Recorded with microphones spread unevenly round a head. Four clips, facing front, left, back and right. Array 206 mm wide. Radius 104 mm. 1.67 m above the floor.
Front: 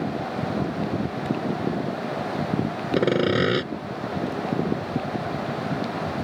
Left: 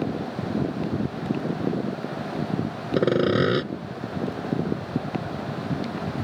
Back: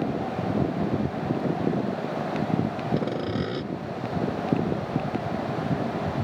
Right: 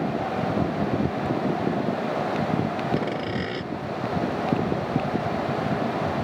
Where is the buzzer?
I don't hear a buzzer.